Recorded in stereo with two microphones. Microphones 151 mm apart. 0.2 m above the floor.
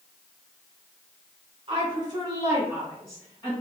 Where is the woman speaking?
40° right (ahead or behind), 1.6 m; by 3.5 s 15° left (ahead or behind), 1.6 m.